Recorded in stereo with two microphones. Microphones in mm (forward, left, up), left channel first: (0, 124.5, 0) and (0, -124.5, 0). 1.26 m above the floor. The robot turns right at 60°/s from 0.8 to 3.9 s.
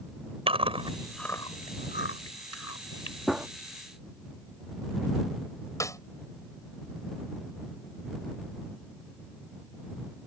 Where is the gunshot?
Centre (ahead or behind); by 3.5 s 10° right (ahead or behind).